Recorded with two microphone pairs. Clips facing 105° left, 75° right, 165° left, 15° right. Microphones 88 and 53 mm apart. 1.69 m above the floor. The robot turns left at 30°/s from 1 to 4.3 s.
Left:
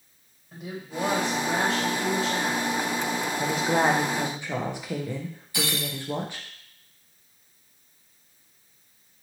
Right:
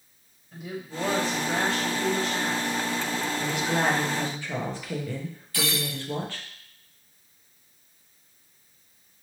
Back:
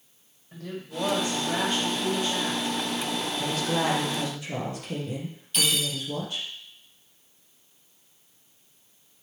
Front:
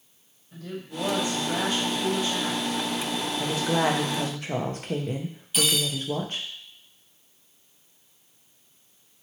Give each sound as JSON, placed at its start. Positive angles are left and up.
{"t": 0.5, "sound": "a woman speaking", "azimuth_deg": 140, "distance_m": 1.4}
{"t": 3.4, "sound": "a woman speaking", "azimuth_deg": 60, "distance_m": 0.5}
{"t": 5.5, "sound": "cutlery clinking", "azimuth_deg": 60, "distance_m": 0.8}